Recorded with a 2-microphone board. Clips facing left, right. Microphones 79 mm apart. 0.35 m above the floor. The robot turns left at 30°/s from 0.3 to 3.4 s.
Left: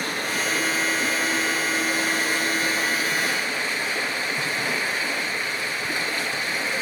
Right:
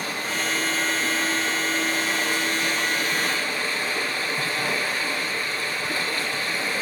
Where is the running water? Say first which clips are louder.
Left 1 dB; 115° left, 3.5 m; by 6.8 s 20° left, 3.5 m.